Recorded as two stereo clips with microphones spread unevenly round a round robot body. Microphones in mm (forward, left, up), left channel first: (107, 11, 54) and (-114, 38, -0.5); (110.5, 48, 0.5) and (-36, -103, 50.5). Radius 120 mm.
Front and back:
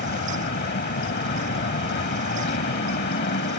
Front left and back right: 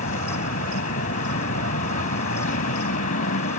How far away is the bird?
I don't hear a bird.